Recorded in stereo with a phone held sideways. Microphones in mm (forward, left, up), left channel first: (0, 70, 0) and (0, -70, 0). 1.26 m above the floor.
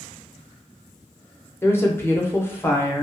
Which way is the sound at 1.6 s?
15° left (ahead or behind).